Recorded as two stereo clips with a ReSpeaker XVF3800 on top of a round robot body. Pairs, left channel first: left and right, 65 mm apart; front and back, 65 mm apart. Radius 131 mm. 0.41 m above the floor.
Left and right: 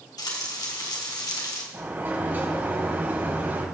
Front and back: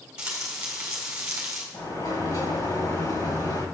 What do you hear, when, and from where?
0.2 s frying: 105° left, 3 m
1.7 s a sliding door: 30° right, 3 m